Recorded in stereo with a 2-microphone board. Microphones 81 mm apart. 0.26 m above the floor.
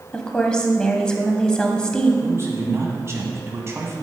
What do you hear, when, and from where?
0.1 s a woman speaking: 10° left (ahead or behind), 1.2 m
2.2 s a man speaking: 35° right (ahead or behind), 1.4 m